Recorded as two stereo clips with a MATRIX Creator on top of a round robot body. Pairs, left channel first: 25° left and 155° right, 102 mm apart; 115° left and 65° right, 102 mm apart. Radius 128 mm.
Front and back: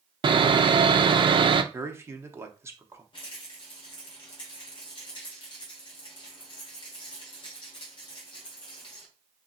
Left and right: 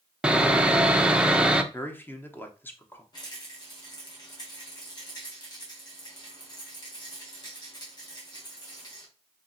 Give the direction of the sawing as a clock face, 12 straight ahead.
5 o'clock.